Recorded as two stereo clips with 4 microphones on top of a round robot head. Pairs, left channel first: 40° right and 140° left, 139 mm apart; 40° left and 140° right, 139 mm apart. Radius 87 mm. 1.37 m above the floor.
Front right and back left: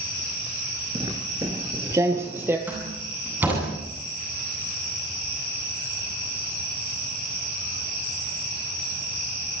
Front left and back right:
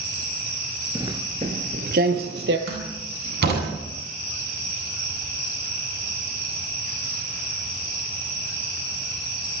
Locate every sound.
0.9 s footsteps: 170° left, 1.4 m; by 2.6 s 145° right, 2.5 m
2.7 s a door slam: 140° right, 9 m